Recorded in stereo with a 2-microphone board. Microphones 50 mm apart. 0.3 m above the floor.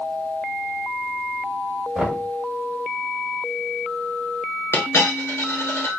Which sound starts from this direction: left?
A dropped coin, at 4.7 s.